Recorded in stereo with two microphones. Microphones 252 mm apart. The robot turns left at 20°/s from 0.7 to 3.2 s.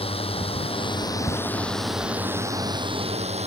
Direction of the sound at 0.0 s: 25° left.